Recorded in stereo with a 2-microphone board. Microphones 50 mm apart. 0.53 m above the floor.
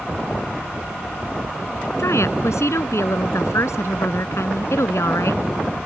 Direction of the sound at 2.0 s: 80° left.